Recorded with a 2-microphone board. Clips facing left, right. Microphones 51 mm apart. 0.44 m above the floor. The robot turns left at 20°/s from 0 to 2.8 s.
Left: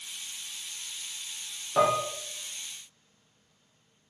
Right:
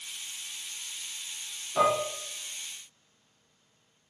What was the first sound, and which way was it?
Dishes clattering, 25° left (ahead or behind).